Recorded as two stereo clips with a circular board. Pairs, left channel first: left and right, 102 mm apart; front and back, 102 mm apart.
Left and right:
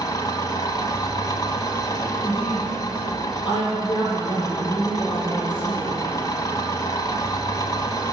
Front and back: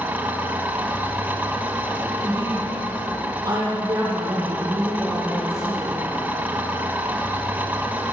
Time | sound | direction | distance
0.0 | an engine running | 115° left | 1.5 m
2.2 | a woman speaking | 125° left | 6.5 m